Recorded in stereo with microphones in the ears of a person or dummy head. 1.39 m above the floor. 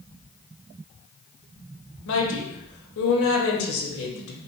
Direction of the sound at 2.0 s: 70° left (ahead or behind).